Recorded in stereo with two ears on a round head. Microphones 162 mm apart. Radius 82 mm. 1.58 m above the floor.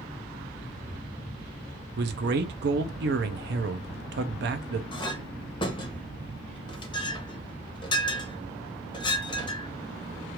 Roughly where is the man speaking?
Right.